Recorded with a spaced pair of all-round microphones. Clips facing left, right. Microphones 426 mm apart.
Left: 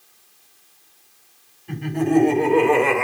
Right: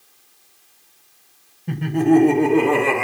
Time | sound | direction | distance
1.7 | laughter | 80° right | 1.6 m